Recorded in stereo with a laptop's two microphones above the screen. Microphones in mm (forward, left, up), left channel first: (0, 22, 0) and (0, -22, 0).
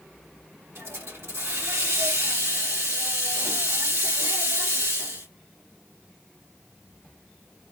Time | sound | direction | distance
0.8 | a hiss | 85° right | 2 m